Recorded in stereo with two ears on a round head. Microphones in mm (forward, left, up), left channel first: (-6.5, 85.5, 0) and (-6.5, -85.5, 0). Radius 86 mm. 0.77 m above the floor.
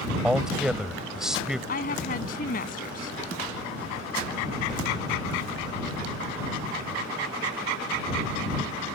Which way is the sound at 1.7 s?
45° left (ahead or behind).